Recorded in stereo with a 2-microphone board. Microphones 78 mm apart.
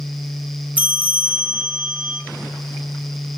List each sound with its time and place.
0.8 s a bell: 15° right (ahead or behind), 2.0 m